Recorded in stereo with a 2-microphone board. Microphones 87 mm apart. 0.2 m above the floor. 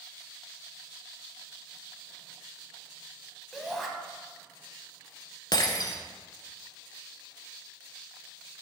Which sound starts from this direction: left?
Breaking glass, at 5.5 s.